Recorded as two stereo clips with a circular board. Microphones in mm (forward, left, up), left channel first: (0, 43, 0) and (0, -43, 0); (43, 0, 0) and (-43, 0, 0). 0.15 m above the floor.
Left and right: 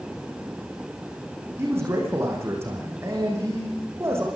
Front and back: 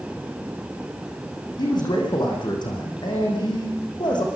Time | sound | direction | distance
1.6 | a man speaking | 35° right | 8 m